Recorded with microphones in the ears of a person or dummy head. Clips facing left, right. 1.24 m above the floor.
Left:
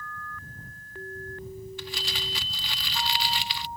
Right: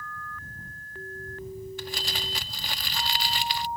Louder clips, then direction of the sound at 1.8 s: Right 1 dB; 40° right (ahead or behind).